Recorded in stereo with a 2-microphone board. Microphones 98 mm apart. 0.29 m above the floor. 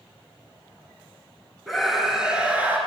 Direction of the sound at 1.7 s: Centre (ahead or behind).